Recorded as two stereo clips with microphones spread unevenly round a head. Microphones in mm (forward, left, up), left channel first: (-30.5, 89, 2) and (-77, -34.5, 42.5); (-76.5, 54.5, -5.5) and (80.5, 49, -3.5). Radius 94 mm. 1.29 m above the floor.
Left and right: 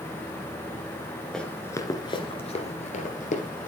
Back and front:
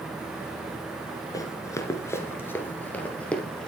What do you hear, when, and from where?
1.3 s running footsteps: 165° right, 1.3 m; by 3.7 s 95° left, 2 m